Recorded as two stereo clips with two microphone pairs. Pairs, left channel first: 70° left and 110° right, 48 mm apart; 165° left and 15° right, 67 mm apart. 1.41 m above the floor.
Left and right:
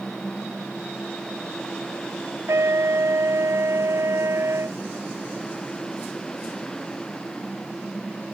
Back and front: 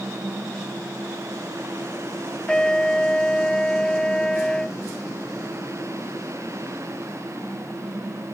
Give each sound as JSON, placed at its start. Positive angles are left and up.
{"t": 2.5, "sound": "a trumpet", "azimuth_deg": -115}